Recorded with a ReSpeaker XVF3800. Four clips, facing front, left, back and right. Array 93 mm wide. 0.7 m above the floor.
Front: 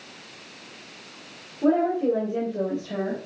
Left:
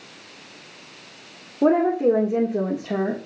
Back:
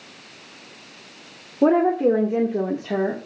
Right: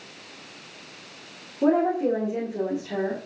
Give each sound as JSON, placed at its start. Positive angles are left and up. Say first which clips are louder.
{"t": 1.6, "sound": "a woman speaking", "louder": "left 3 dB, back 4 dB", "azimuth_deg": 160, "distance_m": 2.0}